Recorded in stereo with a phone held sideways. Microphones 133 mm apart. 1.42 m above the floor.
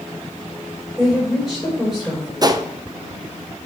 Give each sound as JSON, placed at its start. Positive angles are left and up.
{"t": 1.0, "sound": "a woman speaking", "side_deg": 0, "distance_m": 4.5}
{"t": 2.4, "sound": "a gunshot", "side_deg": -30, "distance_m": 0.5}